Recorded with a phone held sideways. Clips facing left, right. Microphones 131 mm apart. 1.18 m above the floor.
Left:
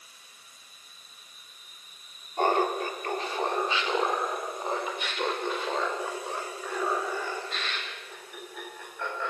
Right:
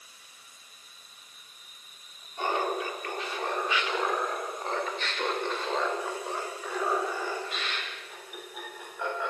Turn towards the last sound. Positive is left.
turn(degrees=-15)  # may be behind; listen again after turning